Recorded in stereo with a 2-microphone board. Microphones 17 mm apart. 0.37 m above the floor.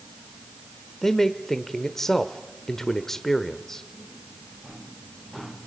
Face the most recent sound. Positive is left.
turn(degrees=20)  # may be behind; listen again after turning